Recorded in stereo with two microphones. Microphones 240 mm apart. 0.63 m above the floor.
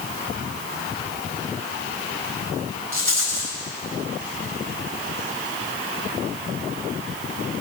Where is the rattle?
60° right (ahead or behind), 4 m.